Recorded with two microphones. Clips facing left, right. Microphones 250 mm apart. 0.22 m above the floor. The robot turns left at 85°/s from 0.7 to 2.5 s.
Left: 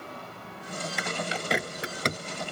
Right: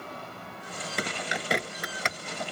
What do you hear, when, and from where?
1.0 s a bird: 45° right (ahead or behind); by 2.2 s 50° left (ahead or behind)